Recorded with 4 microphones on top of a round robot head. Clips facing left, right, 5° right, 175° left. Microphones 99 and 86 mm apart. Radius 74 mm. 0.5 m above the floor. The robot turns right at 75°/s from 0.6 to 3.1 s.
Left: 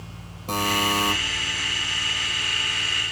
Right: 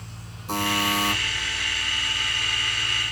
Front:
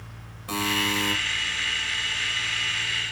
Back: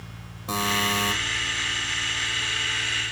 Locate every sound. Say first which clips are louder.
0.5 s a buzzer: left 1 dB, back 1 dB; 115° left, 3 m; by 1.1 s 150° left, 3 m